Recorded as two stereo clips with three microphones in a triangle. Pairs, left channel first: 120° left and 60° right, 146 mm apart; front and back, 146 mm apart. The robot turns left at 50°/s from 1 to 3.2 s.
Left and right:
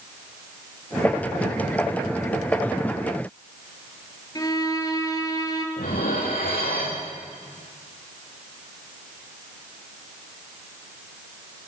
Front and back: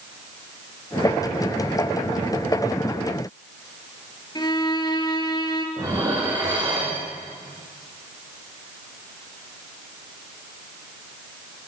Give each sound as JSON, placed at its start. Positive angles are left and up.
{"t": 4.3, "sound": "a violin", "azimuth_deg": 60, "distance_m": 3.0}
{"t": 5.8, "sound": "dishes clattering", "azimuth_deg": 115, "distance_m": 8.0}